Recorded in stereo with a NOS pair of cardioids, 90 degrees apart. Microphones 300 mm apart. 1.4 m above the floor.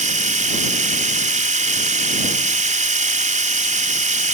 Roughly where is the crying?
No crying in this recording.